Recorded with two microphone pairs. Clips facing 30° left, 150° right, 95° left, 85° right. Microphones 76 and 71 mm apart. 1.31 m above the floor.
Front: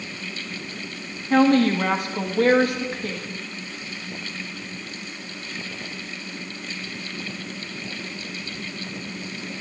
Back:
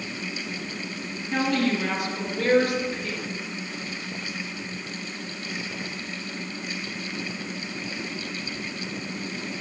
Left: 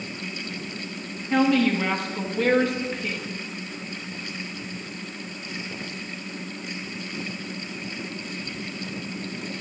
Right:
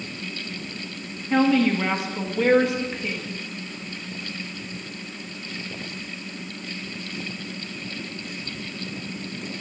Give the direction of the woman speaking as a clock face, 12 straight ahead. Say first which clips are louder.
Front 7 dB, right 1 dB; 12 o'clock.